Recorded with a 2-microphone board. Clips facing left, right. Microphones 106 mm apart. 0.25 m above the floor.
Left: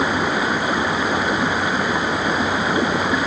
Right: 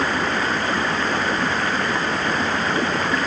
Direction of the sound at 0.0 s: 10° left (ahead or behind).